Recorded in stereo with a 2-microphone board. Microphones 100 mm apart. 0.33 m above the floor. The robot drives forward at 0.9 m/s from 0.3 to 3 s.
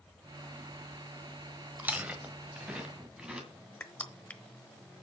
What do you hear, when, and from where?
1.8 s chewing: 15° right (ahead or behind), 1.0 m; by 3.5 s 10° right (ahead or behind), 1.9 m
3.8 s crushing: 15° left (ahead or behind), 0.9 m